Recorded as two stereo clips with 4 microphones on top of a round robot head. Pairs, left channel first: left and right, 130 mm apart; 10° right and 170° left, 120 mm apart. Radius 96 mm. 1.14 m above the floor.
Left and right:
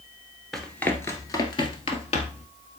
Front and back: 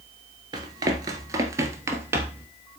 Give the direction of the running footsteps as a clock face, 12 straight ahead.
6 o'clock.